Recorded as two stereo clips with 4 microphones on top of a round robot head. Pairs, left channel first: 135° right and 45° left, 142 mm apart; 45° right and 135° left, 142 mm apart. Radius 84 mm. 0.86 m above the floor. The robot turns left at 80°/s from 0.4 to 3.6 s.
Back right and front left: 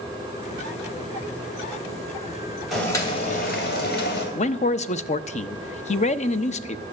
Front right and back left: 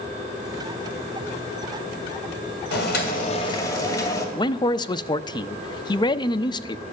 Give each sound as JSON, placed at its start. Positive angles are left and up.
{"t": 2.7, "sound": "boiling", "azimuth_deg": -45, "distance_m": 2.5}
{"t": 4.3, "sound": "a man speaking", "azimuth_deg": -105, "distance_m": 0.6}